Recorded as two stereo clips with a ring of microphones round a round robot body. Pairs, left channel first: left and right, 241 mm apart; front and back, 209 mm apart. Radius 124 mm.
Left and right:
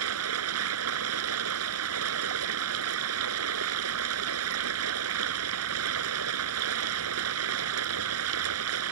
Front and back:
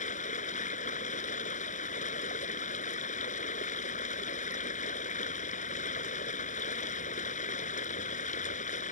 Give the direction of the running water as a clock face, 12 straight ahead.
2 o'clock.